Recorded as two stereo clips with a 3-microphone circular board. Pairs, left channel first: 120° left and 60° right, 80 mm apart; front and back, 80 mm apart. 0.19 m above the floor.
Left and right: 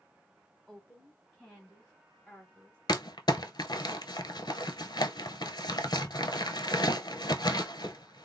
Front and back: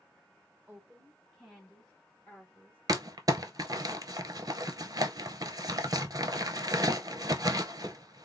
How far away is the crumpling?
About 0.5 m.